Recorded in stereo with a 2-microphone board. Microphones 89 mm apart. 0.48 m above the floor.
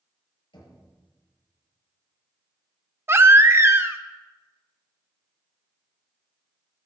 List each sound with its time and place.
0.5 s knocking: 70° left (ahead or behind), 7.5 m
3.1 s a baby crying: 30° right (ahead or behind), 0.6 m